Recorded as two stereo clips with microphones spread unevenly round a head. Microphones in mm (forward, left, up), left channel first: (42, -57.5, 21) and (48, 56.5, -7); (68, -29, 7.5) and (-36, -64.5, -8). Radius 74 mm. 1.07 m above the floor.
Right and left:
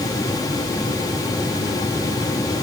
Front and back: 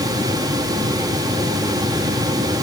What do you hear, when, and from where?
Only background noise.